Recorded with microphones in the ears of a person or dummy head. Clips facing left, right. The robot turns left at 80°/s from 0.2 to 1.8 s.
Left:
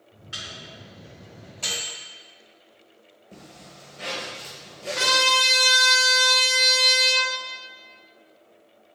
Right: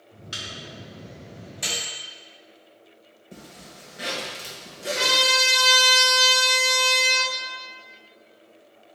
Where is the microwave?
60° right (ahead or behind), 2.0 m; by 1.9 s centre (ahead or behind), 2.0 m.